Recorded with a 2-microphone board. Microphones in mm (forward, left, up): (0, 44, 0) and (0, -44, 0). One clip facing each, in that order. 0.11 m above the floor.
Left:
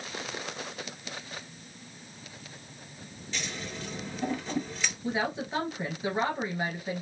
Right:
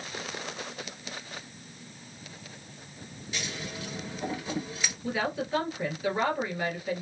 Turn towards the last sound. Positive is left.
turn(degrees=25)  # may be behind; listen again after turning